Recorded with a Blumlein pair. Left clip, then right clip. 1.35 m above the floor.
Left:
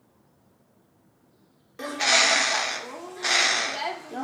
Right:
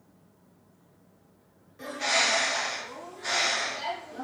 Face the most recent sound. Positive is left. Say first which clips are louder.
# left 5 dB
turn(degrees=55)